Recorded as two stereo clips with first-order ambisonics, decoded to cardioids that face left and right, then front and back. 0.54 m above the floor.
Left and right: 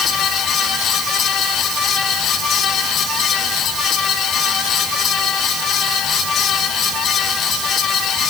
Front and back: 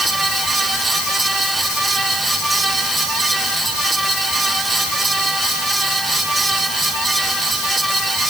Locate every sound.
Only background noise.